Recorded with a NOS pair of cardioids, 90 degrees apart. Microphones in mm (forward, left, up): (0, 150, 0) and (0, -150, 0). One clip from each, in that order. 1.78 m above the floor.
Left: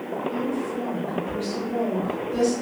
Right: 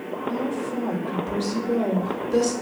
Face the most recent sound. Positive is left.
turn(degrees=-60)